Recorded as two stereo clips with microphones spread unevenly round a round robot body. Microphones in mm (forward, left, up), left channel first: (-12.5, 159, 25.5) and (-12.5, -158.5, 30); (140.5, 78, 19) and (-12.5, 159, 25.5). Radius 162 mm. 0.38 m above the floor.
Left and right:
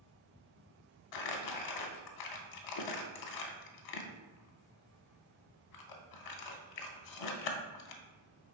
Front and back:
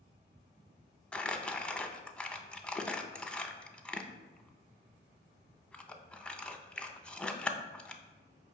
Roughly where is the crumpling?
Ahead left.